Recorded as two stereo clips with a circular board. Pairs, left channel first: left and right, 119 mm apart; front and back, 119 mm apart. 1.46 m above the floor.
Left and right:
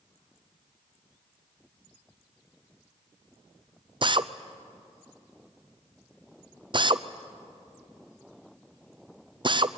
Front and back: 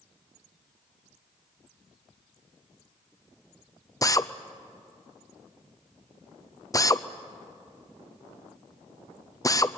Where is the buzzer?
No buzzer in this recording.